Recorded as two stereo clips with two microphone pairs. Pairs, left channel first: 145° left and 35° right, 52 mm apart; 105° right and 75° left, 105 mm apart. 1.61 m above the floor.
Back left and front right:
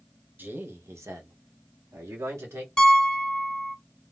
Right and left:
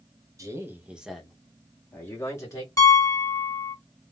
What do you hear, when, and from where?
0.4 s a man speaking: 15° left, 0.8 m; by 2.7 s 50° right, 1.5 m
2.8 s a piano: 145° right, 1.2 m